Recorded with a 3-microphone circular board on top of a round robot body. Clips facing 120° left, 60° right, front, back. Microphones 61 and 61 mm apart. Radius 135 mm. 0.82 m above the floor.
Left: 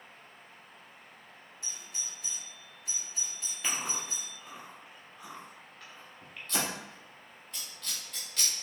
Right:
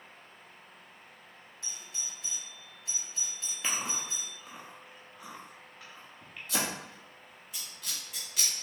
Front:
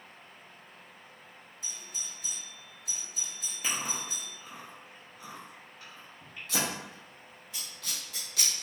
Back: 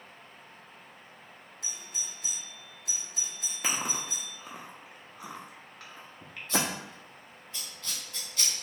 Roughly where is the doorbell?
Behind.